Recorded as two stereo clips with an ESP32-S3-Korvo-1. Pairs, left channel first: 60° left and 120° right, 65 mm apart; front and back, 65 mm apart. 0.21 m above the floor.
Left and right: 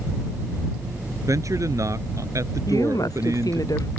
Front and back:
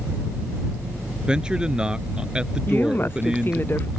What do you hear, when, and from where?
1.3 s a man speaking: 105° right
2.7 s a woman speaking: 55° left